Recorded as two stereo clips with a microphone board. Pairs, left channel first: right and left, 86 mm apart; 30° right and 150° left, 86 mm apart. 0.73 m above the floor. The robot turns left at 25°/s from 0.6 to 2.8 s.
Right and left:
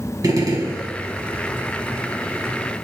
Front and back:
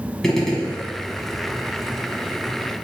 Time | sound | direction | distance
0.2 | a gunshot | 55° left | 1.1 m